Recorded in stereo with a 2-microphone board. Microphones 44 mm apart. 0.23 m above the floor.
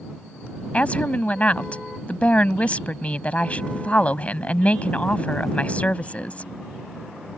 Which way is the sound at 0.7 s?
30° left (ahead or behind).